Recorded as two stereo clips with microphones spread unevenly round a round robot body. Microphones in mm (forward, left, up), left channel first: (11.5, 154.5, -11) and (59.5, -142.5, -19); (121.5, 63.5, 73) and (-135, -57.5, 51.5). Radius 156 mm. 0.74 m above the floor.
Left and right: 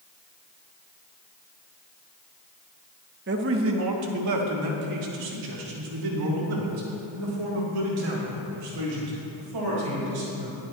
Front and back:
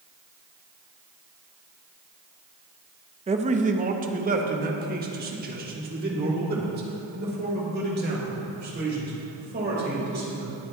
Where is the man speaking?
110° right, 0.8 m; by 10.6 s 100° right, 5 m.